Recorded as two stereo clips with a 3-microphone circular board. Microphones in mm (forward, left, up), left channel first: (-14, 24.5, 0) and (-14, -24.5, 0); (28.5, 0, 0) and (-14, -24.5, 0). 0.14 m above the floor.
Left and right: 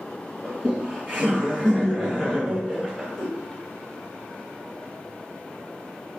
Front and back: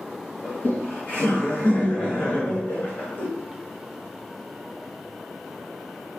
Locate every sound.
0.4 s laughter: 30° left, 1.9 m